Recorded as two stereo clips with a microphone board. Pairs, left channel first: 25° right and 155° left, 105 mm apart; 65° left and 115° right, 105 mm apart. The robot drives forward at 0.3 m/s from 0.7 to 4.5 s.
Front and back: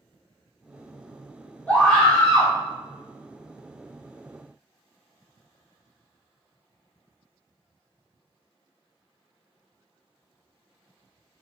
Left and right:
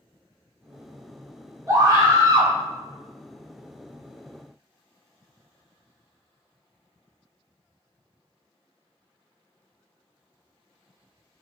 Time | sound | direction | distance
1.7 | a scream | 90° right | 1.1 m